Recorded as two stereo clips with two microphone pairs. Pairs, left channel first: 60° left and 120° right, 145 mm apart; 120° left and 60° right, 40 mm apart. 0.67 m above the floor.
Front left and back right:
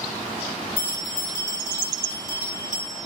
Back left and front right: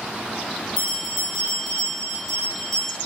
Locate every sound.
0.8 s a bell: 45° left, 1.1 m